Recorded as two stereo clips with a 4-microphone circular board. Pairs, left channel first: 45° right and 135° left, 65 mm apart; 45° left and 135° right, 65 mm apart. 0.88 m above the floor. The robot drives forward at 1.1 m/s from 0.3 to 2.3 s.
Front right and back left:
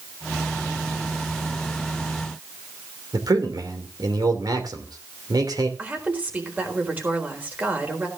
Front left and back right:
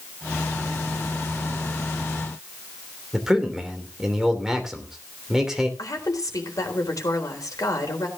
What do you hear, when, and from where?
3.1 s a man speaking: 140° left, 3 m
5.8 s a woman speaking: 70° left, 4 m